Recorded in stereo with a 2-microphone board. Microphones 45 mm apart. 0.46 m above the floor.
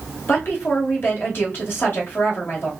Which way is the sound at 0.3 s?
50° left (ahead or behind).